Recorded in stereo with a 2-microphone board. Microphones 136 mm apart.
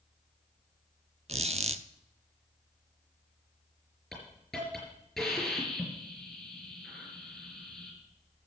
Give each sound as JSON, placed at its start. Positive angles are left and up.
{"t": 1.3, "sound": "a squeak", "side_deg": -50, "distance_m": 0.5}
{"t": 4.1, "sound": "a hiss", "side_deg": 5, "distance_m": 5.0}